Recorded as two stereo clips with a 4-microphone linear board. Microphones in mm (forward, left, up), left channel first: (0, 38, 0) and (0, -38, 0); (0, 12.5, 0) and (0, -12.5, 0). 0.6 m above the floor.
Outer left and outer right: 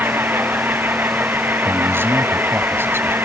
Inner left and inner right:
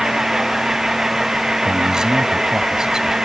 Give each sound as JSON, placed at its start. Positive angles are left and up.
{"t": 0.0, "sound": "an engine running", "side_deg": -25}
{"t": 1.6, "sound": "a man speaking", "side_deg": -30}